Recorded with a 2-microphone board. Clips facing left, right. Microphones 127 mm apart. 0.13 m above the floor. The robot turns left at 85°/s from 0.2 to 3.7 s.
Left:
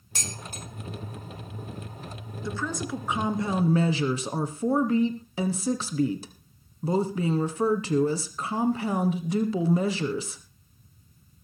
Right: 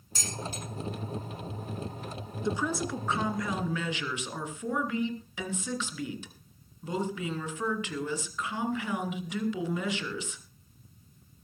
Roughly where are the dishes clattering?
Left.